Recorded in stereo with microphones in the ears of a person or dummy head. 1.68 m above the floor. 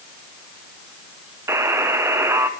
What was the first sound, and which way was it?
A buzzer, 15° right (ahead or behind).